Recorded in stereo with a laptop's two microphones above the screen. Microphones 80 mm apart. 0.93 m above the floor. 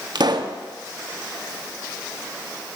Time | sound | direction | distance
0.1 | a pop | 65° right (ahead or behind) | 0.5 m